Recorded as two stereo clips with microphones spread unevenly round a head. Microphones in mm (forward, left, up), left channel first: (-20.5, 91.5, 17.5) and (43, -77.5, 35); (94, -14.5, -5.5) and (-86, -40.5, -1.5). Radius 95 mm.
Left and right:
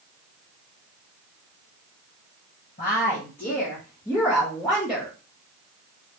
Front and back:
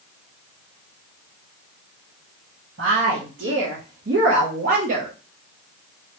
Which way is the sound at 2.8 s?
165° left.